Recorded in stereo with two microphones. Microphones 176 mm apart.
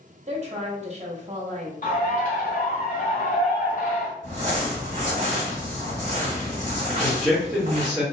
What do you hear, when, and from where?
0.3 s a woman speaking: 40° right (ahead or behind), 0.8 m
1.8 s a bird: 50° left (ahead or behind), 1.0 m
4.2 s crumpling: 40° right (ahead or behind), 1.5 m
6.9 s a man speaking: 5° left (ahead or behind), 1.4 m